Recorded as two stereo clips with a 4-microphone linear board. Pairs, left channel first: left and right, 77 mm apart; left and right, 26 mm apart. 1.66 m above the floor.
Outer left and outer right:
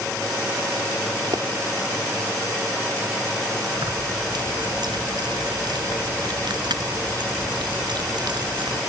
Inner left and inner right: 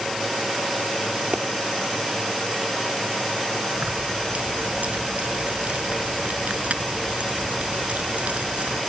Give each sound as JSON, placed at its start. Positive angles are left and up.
{"t": 1.3, "sound": "a pop", "side_deg": -80}
{"t": 3.8, "sound": "keys jangling", "side_deg": -80}